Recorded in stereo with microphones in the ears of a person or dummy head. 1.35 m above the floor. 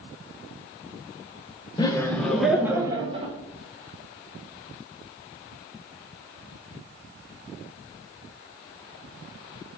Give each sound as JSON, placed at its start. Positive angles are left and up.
{"t": 1.8, "sound": "laughter", "side_deg": 20, "distance_m": 1.3}